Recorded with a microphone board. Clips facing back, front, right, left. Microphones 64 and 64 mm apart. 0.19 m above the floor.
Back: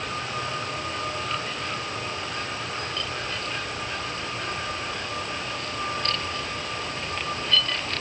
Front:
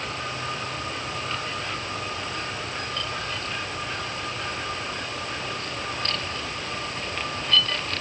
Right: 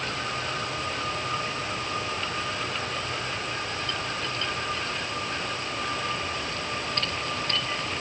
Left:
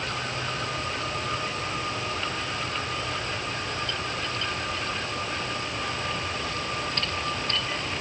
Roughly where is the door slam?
I don't hear a door slam.